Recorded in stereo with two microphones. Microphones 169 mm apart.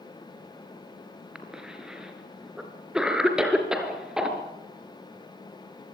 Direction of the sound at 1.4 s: 5° right (ahead or behind).